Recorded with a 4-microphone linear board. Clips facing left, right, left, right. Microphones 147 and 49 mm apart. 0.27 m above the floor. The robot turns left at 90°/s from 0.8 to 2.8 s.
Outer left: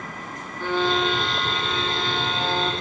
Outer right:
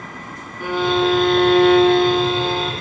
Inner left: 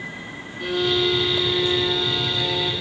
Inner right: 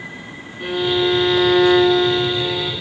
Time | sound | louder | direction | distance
0.6 | a violin | outer right 5 dB, inner right 3 dB | 10° right | 3 m